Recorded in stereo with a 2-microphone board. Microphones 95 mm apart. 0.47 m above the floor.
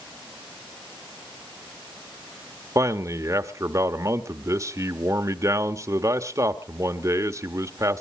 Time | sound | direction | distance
2.8 | a man speaking | 35° right (ahead or behind) | 1.0 m